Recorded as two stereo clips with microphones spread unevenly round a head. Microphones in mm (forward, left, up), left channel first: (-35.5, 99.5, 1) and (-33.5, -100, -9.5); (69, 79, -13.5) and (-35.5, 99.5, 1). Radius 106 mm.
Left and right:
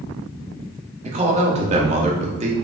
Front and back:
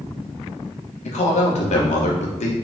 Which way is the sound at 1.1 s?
30° right.